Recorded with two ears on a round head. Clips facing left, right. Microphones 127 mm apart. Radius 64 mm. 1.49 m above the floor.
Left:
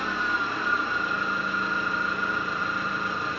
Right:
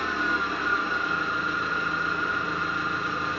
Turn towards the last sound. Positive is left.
turn(degrees=0)  # may be behind; listen again after turning